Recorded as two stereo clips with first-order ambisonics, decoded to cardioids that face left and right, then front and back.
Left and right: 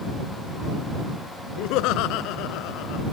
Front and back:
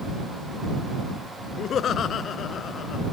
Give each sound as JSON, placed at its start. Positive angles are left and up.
{"t": 1.6, "sound": "laughter", "azimuth_deg": 60}